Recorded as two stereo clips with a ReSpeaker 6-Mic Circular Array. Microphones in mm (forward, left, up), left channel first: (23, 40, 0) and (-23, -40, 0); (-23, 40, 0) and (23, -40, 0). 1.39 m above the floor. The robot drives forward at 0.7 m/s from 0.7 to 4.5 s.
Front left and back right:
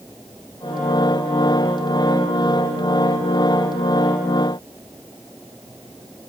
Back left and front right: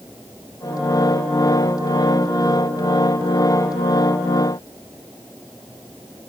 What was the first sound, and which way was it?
Only background noise.